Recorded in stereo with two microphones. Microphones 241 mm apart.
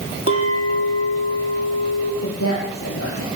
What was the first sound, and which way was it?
A clink, 60° left (ahead or behind).